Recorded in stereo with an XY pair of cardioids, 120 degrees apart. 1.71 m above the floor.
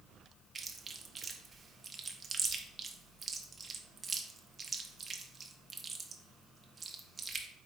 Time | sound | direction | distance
0.6 | chewing | 30° right | 0.6 m